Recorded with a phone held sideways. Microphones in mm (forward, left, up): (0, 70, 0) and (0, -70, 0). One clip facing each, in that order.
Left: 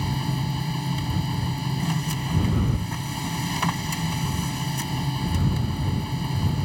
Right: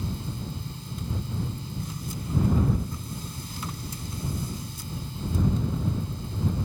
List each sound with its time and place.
0.0 s a machine running: 80° left